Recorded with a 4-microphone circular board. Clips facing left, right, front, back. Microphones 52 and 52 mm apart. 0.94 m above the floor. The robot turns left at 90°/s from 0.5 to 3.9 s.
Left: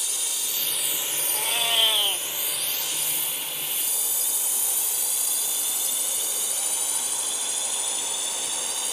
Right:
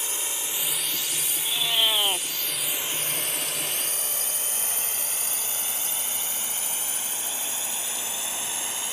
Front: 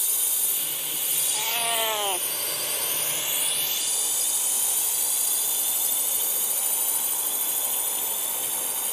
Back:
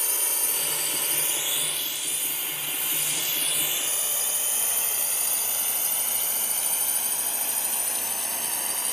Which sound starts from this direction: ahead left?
A cat meowing, at 1.3 s.